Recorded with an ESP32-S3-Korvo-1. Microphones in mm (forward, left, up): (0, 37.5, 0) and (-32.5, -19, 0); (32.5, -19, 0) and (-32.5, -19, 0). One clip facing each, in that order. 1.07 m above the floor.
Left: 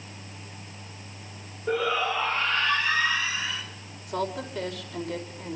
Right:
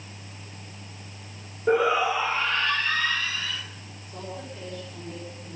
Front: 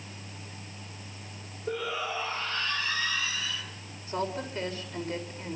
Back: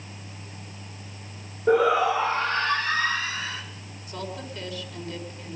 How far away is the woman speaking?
About 4.5 m.